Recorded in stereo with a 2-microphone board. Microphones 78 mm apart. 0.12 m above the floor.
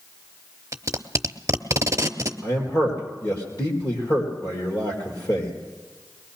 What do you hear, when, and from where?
0.7 s tape being pulled: 40° right (ahead or behind), 0.7 m
2.4 s a man speaking: 55° left (ahead or behind), 4.5 m